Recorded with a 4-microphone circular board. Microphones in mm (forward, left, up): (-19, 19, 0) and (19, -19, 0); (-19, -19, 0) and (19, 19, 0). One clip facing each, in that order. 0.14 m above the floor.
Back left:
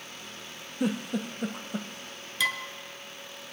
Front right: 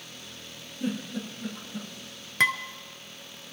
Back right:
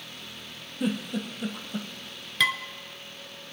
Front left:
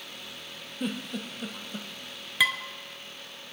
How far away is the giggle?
About 1.6 m.